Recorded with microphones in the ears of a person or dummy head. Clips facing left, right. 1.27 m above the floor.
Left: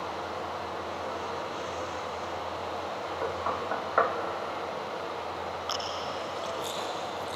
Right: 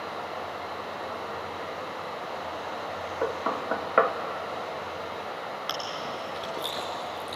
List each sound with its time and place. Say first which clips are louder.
0.0 s running water: even; 30° right (ahead or behind), 3.5 m
3.2 s knocking: right 4 dB; 40° right (ahead or behind), 1.2 m
5.7 s chewing: even; 25° right (ahead or behind), 2.5 m